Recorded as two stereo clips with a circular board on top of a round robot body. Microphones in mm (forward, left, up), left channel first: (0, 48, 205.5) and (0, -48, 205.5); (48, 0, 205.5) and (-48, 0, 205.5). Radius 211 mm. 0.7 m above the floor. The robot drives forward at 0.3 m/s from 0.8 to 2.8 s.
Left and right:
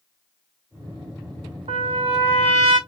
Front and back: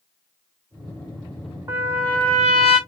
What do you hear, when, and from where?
1.7 s a trumpet: 115° right, 1.2 m; by 2.8 s 130° right, 1.3 m